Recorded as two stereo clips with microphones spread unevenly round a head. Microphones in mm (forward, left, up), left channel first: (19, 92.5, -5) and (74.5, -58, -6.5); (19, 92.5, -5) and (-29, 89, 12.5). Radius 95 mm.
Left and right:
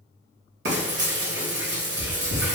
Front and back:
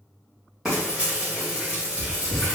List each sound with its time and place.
0.7 s frying: 95° right, 1.1 m